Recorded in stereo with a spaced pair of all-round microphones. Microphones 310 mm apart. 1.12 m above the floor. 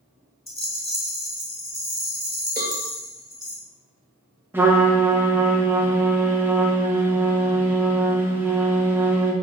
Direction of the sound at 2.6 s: 30° right (ahead or behind).